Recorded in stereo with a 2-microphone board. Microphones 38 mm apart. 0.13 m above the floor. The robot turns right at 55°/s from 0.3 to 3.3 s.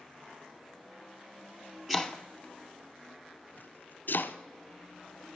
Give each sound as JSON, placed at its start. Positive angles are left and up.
{"t": 1.9, "sound": "chopping", "side_deg": 0, "distance_m": 1.0}